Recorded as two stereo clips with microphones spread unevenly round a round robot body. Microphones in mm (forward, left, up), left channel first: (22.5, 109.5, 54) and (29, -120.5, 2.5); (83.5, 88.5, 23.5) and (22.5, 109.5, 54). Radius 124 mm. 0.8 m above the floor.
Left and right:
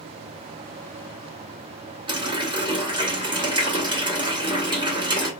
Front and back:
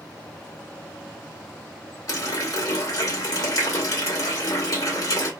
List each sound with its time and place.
2.1 s a running tap: 20° right, 1.2 m